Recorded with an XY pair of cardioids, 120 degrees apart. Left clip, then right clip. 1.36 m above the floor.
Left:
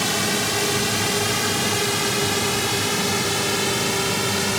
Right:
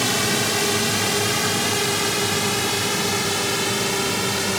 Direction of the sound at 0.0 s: 10° right.